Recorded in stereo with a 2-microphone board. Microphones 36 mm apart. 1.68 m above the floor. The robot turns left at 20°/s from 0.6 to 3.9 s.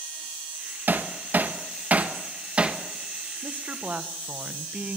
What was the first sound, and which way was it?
Hammering, 55° right (ahead or behind).